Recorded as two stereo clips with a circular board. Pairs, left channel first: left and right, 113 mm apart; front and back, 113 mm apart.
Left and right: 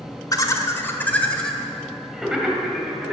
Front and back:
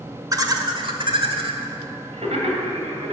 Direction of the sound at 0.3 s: 135° left.